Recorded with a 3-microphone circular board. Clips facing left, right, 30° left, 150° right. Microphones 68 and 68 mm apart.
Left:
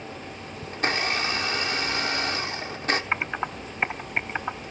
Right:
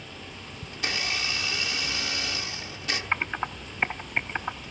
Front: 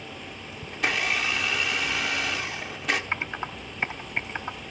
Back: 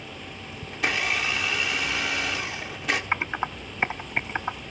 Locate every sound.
0.7 s a blender: 120° left, 1.1 m
3.1 s typing on a keyboard: 170° left, 0.5 m